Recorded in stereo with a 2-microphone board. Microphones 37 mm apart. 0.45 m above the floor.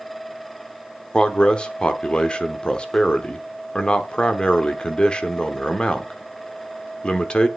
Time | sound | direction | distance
1.1 | a man speaking | 25° left (ahead or behind) | 1.0 m